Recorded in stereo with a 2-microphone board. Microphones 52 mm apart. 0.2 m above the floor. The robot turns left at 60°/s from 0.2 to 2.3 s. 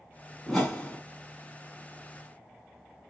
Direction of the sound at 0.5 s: Straight behind.